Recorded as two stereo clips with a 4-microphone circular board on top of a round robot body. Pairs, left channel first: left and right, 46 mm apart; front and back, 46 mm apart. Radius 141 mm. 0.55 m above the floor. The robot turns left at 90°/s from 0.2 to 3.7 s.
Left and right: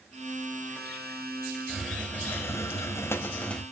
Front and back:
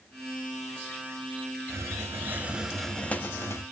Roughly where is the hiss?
Behind.